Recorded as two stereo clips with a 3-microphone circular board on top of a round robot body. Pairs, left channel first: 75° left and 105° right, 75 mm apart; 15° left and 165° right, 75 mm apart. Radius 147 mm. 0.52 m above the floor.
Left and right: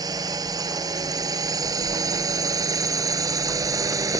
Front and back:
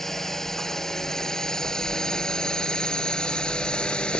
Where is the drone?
70° right; by 4.2 s 60° right.